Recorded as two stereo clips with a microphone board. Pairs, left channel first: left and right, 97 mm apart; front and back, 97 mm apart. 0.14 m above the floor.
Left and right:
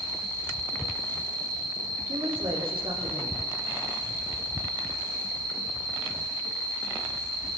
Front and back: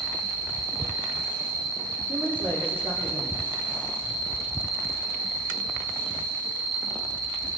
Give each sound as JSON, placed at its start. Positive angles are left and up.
{"t": 0.0, "sound": "an insect", "azimuth_deg": 135, "distance_m": 3.5}
{"t": 2.1, "sound": "a man speaking", "azimuth_deg": -115, "distance_m": 6.5}